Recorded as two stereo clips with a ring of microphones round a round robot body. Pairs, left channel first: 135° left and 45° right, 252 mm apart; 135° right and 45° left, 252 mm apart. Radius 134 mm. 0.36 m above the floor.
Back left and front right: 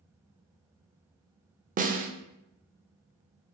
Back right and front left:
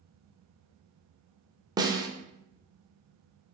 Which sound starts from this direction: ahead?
A snare drum, at 1.8 s.